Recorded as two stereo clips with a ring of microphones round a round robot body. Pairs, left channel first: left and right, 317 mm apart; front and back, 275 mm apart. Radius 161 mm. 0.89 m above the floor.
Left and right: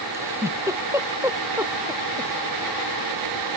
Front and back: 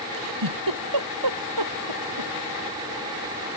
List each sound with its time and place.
0.1 s a giggle: 170° right